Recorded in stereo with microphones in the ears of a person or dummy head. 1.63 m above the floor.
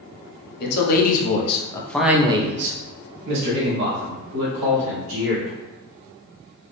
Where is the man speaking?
60° left (ahead or behind), 1.1 m; by 5.6 s 80° right, 2.5 m.